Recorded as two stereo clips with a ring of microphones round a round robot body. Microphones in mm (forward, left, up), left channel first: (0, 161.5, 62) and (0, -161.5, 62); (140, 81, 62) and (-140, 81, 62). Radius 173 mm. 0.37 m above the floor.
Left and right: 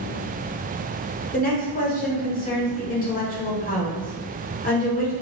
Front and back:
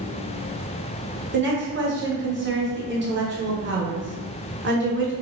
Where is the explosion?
I don't hear an explosion.